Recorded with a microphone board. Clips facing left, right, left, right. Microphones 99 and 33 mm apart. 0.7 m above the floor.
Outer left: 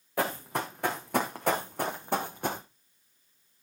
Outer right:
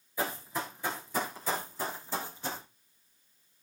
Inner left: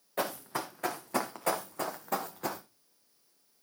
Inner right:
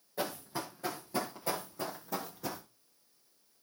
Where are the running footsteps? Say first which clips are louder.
Outer left 4 dB, inner left 3 dB; 75° left (ahead or behind), 3 m; by 2.6 s 60° left (ahead or behind), 1.5 m.